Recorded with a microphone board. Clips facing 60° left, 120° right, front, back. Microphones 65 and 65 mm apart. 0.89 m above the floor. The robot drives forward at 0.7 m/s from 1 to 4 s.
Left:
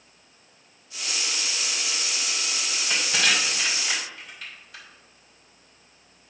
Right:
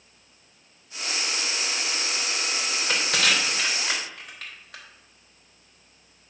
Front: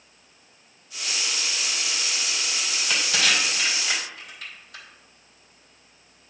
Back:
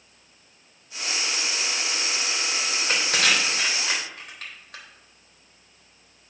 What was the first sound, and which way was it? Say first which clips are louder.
Crushing: even, back 1 dB; 140° right.